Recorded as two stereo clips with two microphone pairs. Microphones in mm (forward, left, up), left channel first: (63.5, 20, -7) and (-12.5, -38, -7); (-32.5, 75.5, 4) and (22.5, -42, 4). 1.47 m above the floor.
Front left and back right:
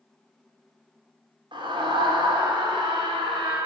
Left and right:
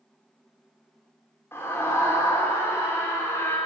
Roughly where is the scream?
Behind.